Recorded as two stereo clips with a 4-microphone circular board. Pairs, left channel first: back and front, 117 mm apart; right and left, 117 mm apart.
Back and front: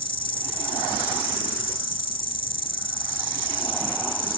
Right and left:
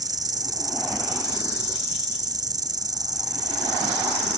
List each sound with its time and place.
0.0 s an insect: 145° left